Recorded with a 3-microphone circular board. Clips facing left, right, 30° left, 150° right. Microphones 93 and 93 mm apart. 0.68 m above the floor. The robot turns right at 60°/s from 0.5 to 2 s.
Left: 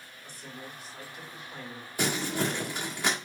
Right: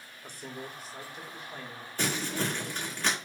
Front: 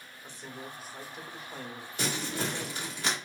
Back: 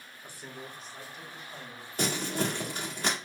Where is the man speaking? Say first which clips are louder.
Right 3 dB, front 1 dB; 70° right, 1.3 m; by 3.0 s 20° left, 1.3 m.